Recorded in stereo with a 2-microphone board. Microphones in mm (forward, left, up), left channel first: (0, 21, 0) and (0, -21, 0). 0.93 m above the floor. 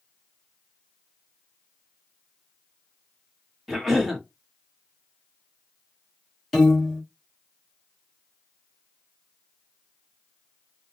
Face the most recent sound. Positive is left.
turn(degrees=5)  # may be behind; listen again after turning